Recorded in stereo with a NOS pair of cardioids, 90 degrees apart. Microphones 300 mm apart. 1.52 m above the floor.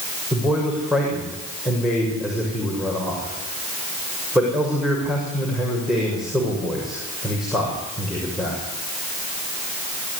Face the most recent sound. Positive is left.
turn(degrees=0)